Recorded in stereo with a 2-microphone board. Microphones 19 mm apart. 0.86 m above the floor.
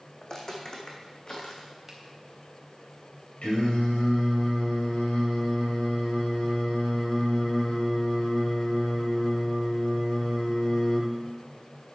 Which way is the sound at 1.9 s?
15° right (ahead or behind).